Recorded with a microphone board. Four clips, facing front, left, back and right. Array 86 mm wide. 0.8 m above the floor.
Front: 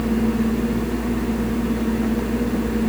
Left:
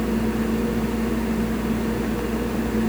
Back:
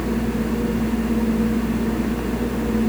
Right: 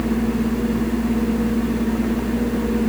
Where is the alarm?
No alarm in this recording.